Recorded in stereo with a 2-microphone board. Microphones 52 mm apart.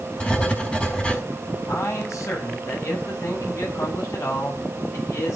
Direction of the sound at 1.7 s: 70° left (ahead or behind).